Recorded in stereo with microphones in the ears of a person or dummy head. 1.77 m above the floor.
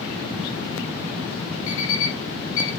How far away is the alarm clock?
About 3.5 m.